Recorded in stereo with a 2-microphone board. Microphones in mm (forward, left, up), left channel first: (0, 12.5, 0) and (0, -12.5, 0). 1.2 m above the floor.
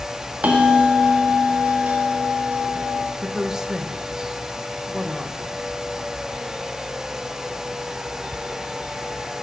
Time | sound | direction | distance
0.4 | a bell | 90° right | 1.8 m
3.2 | a woman speaking | 25° right (ahead or behind) | 1.1 m